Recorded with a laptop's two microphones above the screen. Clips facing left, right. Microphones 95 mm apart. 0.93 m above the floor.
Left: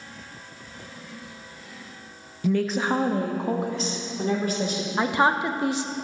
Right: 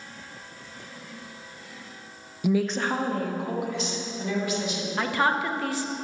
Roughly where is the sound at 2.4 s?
Centre.